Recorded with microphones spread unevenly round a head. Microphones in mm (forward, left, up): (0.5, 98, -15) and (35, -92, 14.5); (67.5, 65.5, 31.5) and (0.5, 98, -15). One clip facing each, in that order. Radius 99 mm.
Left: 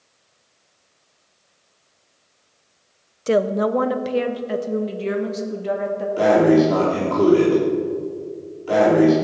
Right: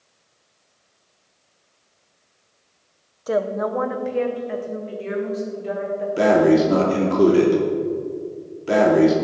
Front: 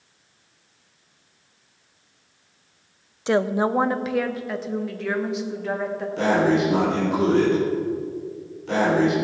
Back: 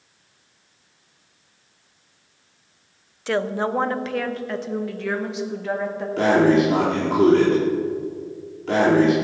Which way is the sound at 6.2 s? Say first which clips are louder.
Left 1 dB, back 3 dB; 145° right.